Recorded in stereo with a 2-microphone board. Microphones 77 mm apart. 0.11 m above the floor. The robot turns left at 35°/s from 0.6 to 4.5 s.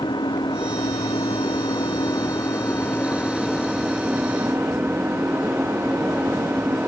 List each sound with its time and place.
0.0 s an engine running: 110° left; by 6.9 s 30° right